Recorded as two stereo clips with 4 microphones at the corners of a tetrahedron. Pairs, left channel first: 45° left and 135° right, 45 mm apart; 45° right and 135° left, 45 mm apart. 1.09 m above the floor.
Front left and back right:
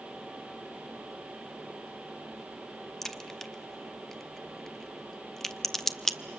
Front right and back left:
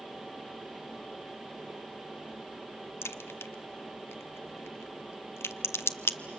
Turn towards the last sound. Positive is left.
turn(degrees=-35)